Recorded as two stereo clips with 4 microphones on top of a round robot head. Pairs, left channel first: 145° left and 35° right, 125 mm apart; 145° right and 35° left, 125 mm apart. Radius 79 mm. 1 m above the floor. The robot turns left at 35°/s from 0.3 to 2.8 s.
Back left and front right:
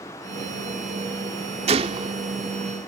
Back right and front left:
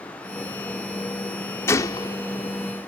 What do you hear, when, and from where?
1.7 s a gunshot: 75° right; by 2.2 s 95° right